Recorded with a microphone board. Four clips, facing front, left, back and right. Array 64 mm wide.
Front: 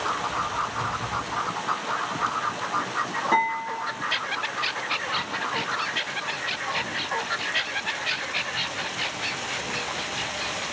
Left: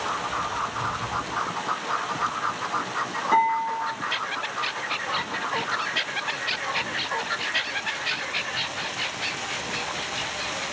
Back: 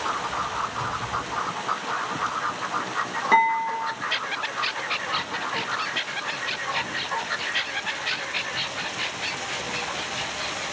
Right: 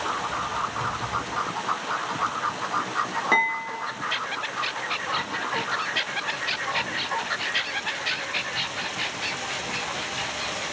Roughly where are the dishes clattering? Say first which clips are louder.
Left 4 dB, back 5 dB; behind right.